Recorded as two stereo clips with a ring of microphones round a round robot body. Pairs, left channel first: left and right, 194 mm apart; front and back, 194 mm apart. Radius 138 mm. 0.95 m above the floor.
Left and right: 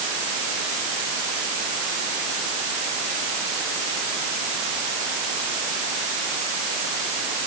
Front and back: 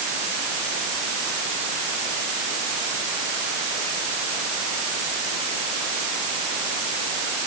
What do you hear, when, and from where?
Only background noise.